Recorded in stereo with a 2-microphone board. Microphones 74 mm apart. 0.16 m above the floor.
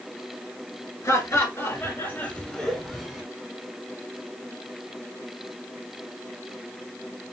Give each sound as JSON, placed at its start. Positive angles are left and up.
{"t": 1.0, "sound": "laughter", "side_deg": 50, "distance_m": 3.0}